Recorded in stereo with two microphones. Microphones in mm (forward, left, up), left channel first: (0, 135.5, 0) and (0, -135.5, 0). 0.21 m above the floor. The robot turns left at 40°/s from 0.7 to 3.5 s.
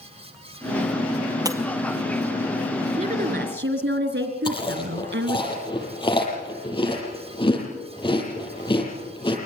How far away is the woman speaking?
About 3.5 m.